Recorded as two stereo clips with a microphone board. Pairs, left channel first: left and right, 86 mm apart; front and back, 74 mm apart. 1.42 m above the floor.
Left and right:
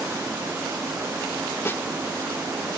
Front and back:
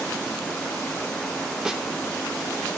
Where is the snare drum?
115° left, 1.1 m.